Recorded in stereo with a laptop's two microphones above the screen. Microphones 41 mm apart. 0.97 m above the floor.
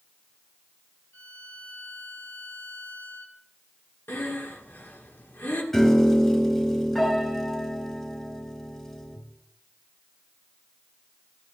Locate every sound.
1.1 s a violin: 50° left (ahead or behind), 1.9 m
4.1 s breathing: 60° left (ahead or behind), 1.8 m
5.7 s a piano: 10° left (ahead or behind), 3.5 m